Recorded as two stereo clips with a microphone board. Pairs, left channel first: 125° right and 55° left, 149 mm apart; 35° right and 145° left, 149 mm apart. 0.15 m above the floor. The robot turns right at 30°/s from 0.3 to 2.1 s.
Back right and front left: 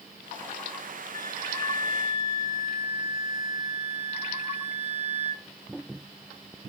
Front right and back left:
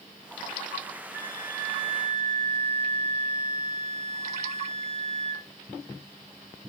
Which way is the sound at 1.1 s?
30° left.